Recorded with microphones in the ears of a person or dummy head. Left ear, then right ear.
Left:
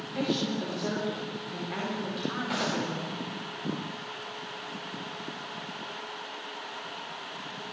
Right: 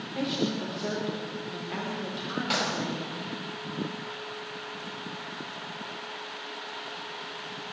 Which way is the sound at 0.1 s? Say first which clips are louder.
Even; centre (ahead or behind).